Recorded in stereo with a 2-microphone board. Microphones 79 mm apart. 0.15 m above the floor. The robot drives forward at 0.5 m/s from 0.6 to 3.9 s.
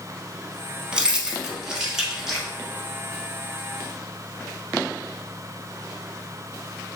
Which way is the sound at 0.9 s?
15° right (ahead or behind).